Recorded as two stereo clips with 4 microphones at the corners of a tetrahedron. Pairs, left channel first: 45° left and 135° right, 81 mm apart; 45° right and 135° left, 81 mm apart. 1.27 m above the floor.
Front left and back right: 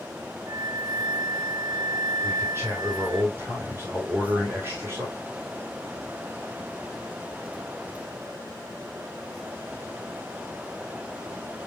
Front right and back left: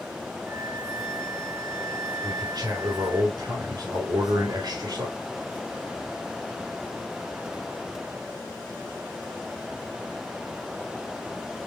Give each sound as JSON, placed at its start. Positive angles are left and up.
{"t": 0.5, "sound": "a flute", "azimuth_deg": -165, "distance_m": 1.1}
{"t": 2.2, "sound": "a man speaking", "azimuth_deg": 165, "distance_m": 3.5}